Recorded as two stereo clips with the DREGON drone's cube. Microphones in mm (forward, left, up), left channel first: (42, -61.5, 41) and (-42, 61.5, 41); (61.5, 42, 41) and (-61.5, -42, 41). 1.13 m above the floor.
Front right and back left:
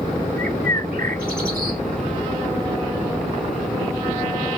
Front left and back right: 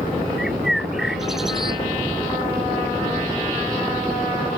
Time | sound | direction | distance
0.4 | a bird | 125° left | ?